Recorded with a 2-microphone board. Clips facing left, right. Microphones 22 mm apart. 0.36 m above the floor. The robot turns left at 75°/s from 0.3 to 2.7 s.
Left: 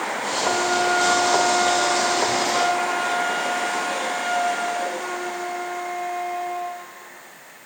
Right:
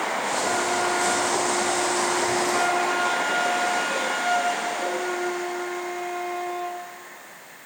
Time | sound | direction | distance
0.4 | a flute | 170° left | 2.5 m